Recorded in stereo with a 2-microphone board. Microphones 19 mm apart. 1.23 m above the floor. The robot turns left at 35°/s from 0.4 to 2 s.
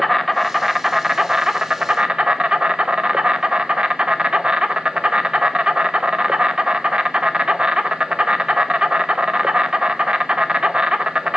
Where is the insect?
10° left, 0.7 m; by 11.4 s 50° right, 0.7 m.